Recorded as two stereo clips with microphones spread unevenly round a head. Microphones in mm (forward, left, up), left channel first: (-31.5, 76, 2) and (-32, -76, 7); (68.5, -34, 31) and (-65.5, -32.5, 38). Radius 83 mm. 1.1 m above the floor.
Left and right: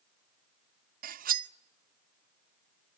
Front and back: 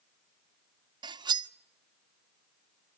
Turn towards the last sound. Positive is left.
turn(degrees=-120)